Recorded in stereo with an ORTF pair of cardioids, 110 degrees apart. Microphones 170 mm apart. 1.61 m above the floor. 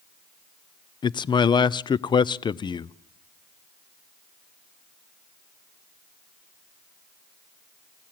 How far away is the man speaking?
About 0.5 m.